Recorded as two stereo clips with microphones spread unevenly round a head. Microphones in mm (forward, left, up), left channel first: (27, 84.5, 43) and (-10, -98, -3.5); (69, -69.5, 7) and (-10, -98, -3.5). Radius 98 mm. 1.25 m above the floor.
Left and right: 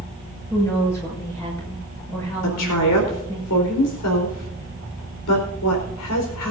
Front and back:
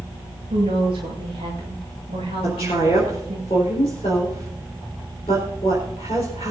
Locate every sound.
0.5 s a woman speaking: 155° left, 6.5 m
2.4 s a woman speaking: 80° left, 4 m